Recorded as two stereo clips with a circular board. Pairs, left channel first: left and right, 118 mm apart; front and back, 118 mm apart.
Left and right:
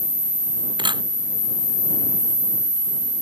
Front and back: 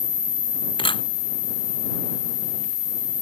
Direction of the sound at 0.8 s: 40° right.